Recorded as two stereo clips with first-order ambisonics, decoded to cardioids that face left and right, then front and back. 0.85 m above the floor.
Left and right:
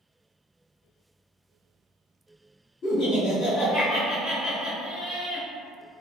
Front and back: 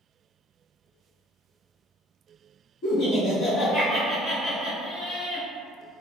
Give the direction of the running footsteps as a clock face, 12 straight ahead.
I don't hear running footsteps.